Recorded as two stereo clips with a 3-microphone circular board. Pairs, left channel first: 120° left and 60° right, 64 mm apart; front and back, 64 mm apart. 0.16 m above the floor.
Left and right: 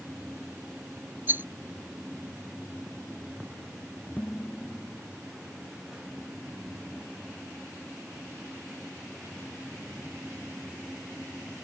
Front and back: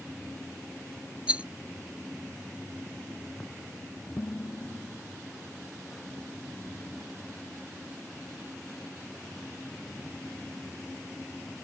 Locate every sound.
1.3 s a rattle: 115° right
4.2 s dishes clattering: 55° left